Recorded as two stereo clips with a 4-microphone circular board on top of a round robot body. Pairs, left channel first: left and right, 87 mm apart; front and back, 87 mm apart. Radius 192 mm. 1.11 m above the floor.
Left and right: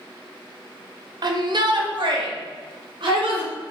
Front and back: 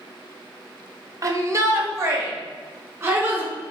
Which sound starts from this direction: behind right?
A shout, at 1.2 s.